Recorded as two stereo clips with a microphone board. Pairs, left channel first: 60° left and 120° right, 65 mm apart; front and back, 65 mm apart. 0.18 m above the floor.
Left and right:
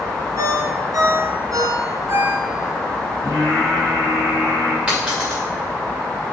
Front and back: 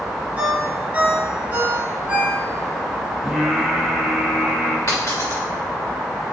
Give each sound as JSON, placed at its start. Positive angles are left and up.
{"t": 0.4, "sound": "a ringtone", "azimuth_deg": -110, "distance_m": 2.0}
{"t": 3.2, "sound": "singing", "azimuth_deg": -90, "distance_m": 3.5}
{"t": 4.9, "sound": "a dropped coin", "azimuth_deg": -45, "distance_m": 2.5}